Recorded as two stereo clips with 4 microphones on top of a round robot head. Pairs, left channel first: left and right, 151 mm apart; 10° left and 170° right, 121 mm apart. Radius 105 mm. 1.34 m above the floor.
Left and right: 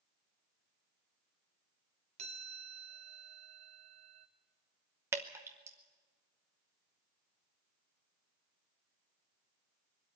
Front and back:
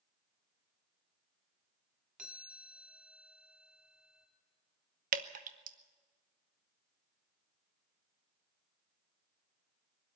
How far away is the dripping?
About 0.8 m.